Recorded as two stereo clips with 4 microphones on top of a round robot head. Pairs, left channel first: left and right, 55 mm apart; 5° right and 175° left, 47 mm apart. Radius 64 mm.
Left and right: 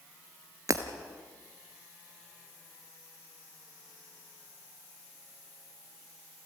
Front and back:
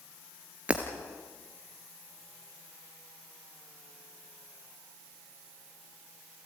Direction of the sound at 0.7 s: 115° right.